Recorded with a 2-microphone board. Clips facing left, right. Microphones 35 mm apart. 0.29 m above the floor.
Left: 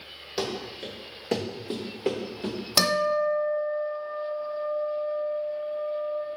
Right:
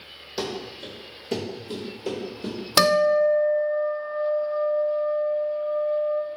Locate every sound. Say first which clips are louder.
0.4 s running footsteps: even; 20° left (ahead or behind), 1.7 m; by 2.6 s 55° left (ahead or behind), 2 m
2.8 s a guitar: right 6 dB; 35° right (ahead or behind), 0.6 m